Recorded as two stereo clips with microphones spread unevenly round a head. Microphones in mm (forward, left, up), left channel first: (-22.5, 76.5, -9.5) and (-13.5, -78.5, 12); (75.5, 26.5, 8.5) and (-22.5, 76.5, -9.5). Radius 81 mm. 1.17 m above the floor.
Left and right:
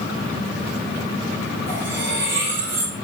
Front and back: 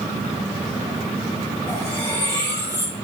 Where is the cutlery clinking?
100° right, 7.5 m.